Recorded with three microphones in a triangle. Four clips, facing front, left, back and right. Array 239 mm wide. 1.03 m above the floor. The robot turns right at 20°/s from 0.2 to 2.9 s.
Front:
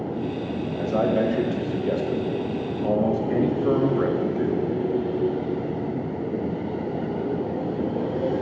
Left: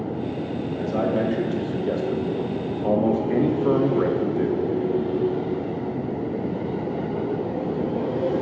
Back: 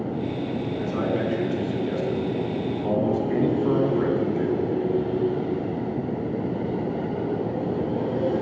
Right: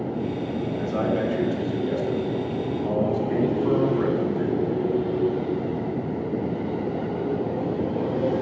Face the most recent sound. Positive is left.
turn(degrees=65)